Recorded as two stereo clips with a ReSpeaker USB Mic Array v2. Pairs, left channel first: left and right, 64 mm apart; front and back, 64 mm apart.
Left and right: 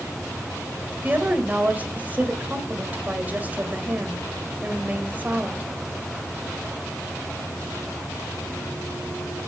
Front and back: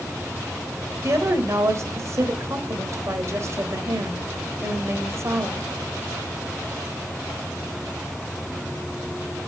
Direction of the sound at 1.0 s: 150° right.